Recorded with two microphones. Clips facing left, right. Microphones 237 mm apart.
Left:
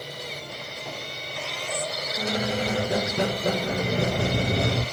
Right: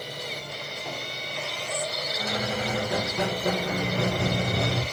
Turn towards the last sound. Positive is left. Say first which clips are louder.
# left 4 dB
turn(degrees=30)  # may be behind; listen again after turning